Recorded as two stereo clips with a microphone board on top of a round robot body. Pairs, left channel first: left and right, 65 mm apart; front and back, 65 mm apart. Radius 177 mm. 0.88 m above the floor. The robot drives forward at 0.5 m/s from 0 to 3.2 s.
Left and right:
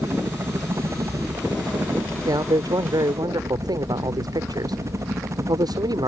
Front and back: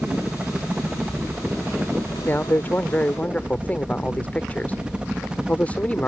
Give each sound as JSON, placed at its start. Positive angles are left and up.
{"t": 0.0, "sound": "a helicopter", "azimuth_deg": -115}
{"t": 2.2, "sound": "a man speaking", "azimuth_deg": -65}